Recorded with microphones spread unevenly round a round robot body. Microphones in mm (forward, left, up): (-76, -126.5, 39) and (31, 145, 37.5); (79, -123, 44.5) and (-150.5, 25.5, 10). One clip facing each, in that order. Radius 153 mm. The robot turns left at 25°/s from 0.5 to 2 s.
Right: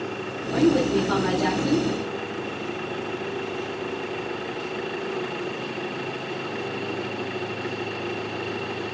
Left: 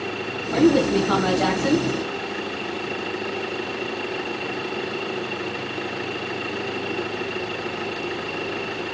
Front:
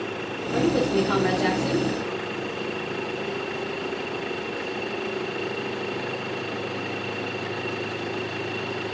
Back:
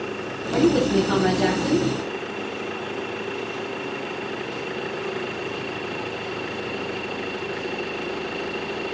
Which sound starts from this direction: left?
A woman speaking, at 0.5 s.